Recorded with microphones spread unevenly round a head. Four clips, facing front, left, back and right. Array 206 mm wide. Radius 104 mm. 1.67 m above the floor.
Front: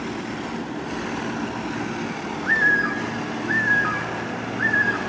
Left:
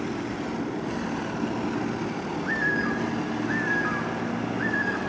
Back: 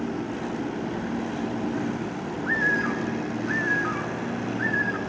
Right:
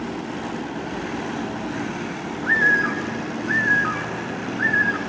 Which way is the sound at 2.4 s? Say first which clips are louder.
Right 8 dB, front 4 dB; 55° right.